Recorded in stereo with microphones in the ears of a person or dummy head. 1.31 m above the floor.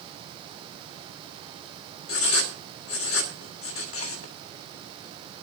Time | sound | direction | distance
2.1 | writing | 70° left (ahead or behind) | 1.8 m